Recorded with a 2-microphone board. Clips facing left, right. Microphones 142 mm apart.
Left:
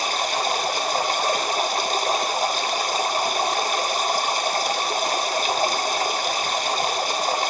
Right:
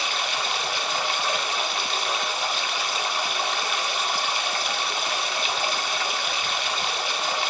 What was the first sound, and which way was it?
Running water, 40° left (ahead or behind).